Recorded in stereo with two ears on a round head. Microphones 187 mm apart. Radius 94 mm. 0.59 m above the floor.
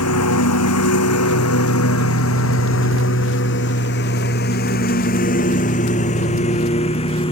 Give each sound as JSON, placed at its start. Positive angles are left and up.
{"t": 0.0, "sound": "a lawn mower", "side_deg": 90}